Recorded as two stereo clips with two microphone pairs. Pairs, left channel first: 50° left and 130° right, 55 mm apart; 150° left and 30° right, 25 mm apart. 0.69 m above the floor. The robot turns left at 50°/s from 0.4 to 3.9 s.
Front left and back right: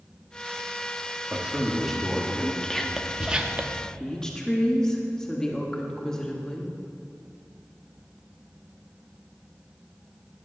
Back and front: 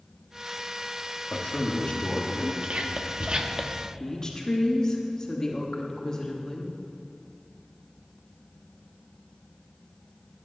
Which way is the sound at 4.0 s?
120° left.